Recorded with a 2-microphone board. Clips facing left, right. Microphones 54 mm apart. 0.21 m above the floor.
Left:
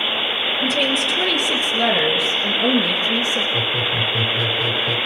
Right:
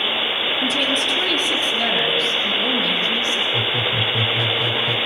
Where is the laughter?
5° right (ahead or behind), 1.3 m.